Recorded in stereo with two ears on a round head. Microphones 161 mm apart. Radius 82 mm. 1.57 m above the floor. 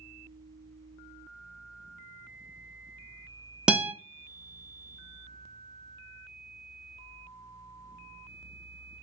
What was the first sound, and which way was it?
A guitar, 5° right (ahead or behind).